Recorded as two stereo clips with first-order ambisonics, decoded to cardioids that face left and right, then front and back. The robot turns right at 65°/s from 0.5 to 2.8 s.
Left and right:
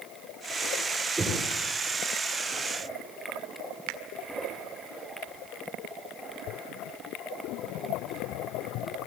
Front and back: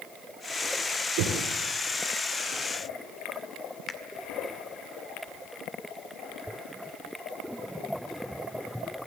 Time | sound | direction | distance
1.2 | knocking | 170° right | 9 m
3.9 | a finger snap | 75° right | 1.8 m